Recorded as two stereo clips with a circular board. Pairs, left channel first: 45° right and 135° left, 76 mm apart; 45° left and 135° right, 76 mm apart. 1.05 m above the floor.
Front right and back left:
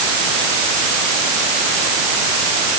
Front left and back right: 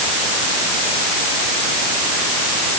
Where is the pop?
No pop in this recording.